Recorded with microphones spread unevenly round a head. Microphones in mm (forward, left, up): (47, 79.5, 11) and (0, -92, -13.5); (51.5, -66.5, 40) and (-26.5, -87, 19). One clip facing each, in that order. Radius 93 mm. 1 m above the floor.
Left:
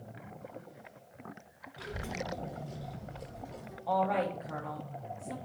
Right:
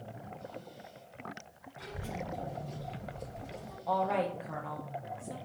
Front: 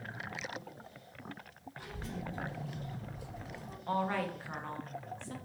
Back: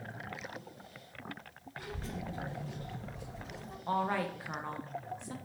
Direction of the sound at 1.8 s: 120° left.